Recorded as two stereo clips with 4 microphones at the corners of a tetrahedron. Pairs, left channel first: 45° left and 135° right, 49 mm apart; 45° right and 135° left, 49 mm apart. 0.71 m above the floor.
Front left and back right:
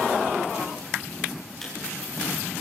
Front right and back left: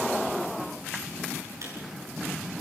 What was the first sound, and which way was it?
A camera shutter, 130° left.